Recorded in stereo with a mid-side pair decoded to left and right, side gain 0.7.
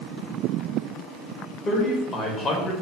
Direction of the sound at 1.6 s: 30° left.